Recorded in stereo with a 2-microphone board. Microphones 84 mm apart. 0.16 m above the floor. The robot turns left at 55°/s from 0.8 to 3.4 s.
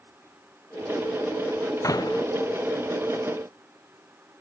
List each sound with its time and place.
1.8 s a door slam: 40° left (ahead or behind); by 2.2 s 65° left (ahead or behind)